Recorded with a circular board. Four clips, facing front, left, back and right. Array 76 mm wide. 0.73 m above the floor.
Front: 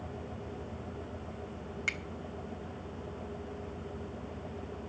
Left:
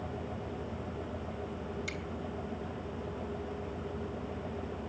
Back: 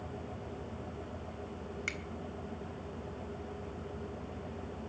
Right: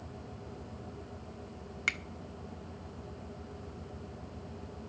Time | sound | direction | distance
1.9 | a finger snap | 80° right | 1.3 m